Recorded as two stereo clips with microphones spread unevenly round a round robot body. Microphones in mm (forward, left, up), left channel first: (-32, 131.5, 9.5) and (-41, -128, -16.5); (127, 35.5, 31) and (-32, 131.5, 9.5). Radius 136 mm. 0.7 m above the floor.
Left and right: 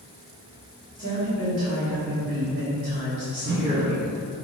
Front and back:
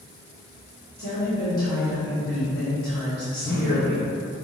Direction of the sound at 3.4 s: 90° right.